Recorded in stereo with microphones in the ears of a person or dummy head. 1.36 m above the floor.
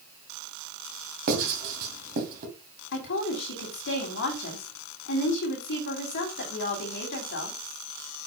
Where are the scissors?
No scissors in this recording.